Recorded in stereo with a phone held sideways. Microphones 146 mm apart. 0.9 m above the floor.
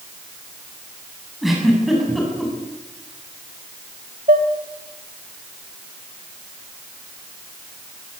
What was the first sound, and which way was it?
A giggle, centre (ahead or behind).